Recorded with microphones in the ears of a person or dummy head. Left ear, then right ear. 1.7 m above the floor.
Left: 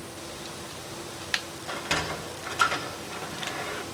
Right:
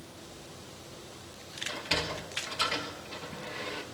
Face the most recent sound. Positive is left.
turn(degrees=35)  # may be behind; listen again after turning